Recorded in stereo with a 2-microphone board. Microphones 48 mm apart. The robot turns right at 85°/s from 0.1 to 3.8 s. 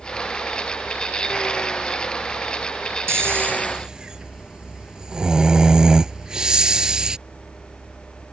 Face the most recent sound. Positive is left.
turn(degrees=-15)